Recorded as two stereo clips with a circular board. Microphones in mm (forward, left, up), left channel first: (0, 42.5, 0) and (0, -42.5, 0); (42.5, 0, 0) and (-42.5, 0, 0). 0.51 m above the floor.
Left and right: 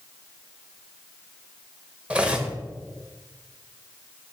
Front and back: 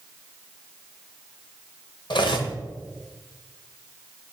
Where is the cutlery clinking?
15° right, 1.2 m.